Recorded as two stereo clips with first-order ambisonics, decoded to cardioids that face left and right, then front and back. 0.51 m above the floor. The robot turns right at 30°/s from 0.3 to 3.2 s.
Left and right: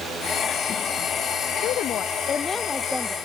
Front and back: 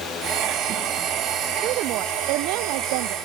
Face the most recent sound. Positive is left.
turn(degrees=-175)